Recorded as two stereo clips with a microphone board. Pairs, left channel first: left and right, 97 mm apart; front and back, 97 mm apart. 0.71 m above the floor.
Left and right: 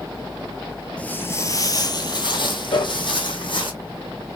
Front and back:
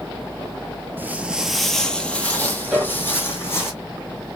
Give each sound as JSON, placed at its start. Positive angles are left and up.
{"t": 1.0, "sound": "footsteps", "azimuth_deg": 150, "distance_m": 0.7}
{"t": 2.7, "sound": "a piano", "azimuth_deg": 95, "distance_m": 2.5}